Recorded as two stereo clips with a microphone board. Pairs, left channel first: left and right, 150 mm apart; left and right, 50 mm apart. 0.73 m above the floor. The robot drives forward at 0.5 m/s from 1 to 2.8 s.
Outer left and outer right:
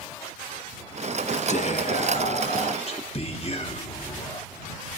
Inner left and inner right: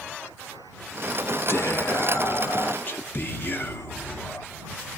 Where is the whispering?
55° left (ahead or behind), 0.7 m; by 4.5 s 40° left (ahead or behind), 0.9 m.